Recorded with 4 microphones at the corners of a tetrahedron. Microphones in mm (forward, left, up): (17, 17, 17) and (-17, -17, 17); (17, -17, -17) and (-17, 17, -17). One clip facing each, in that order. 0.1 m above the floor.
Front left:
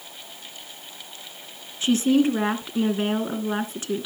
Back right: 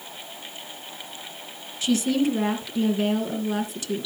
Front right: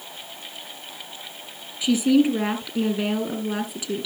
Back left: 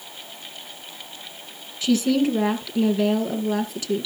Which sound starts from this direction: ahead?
A woman speaking, at 1.8 s.